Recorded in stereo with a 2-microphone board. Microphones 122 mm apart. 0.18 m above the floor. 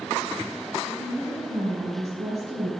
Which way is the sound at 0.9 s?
60° right (ahead or behind).